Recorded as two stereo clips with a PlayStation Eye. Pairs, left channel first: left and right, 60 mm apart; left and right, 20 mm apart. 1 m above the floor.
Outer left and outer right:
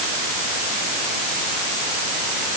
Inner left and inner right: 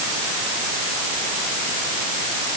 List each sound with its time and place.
Only background noise.